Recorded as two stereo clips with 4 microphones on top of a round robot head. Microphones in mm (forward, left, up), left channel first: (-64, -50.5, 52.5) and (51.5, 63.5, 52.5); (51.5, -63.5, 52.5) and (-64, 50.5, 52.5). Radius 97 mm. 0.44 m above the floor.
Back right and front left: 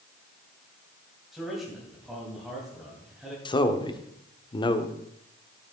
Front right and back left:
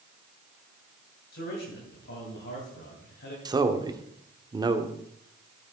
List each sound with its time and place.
1.3 s a man speaking: 45° right, 3 m
3.5 s a man speaking: 175° right, 1.1 m